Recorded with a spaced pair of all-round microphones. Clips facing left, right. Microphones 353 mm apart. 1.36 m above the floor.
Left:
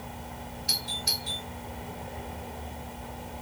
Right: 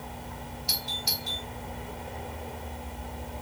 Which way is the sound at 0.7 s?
65° left (ahead or behind).